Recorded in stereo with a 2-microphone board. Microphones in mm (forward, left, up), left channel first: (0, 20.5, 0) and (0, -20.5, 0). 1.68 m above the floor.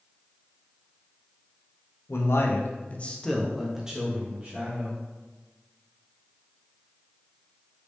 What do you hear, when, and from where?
2.1 s a man speaking: 85° left, 0.9 m; by 5.0 s 35° right (ahead or behind), 1.9 m